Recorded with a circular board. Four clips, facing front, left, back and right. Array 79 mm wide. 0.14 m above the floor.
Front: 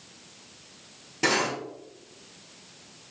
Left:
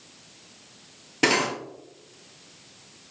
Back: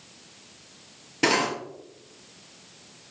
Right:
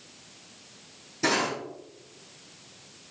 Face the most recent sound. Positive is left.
turn(degrees=110)